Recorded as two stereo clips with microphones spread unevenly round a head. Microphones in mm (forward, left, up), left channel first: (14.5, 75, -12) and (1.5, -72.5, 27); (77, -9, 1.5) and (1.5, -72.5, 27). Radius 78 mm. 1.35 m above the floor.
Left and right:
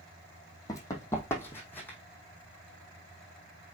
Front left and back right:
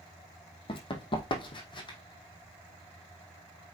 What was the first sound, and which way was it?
Running footsteps, 10° left.